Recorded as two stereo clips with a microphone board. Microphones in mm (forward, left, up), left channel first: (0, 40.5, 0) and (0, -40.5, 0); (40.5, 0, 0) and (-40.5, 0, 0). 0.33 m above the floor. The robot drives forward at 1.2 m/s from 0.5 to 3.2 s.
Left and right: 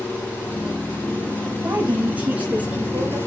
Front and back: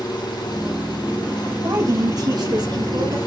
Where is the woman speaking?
150° right, 1.9 m; by 3.2 s 165° right, 3.5 m.